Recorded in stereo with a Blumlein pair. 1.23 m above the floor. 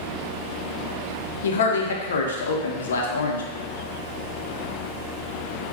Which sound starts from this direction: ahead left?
A man speaking, at 1.4 s.